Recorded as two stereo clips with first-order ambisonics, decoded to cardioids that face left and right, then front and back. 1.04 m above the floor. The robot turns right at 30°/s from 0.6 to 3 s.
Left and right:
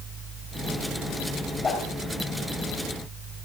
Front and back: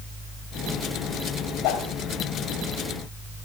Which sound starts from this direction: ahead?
A whoosh, at 1.6 s.